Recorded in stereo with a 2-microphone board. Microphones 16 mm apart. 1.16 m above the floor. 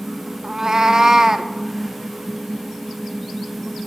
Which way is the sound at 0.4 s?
35° right (ahead or behind).